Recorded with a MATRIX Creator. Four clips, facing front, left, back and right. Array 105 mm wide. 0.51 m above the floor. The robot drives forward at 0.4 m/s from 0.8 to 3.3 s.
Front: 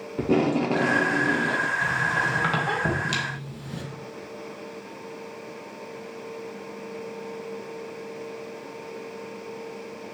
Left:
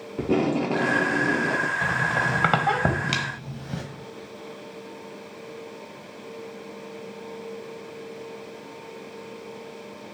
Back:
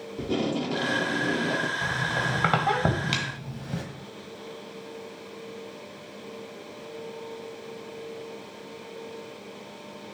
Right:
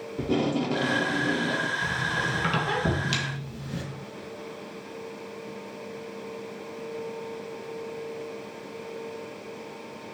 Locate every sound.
0.2 s tape being pulled: 30° left, 0.5 m; by 1.7 s 130° left, 0.5 m
1.8 s a squeak: 100° left, 1.0 m; by 3.8 s 125° left, 1.3 m